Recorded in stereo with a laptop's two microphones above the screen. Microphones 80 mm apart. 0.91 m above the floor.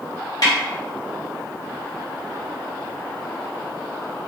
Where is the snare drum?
55° left (ahead or behind), 0.9 m.